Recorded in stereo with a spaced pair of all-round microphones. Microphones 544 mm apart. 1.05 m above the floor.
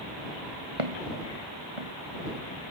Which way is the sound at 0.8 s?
70° right (ahead or behind).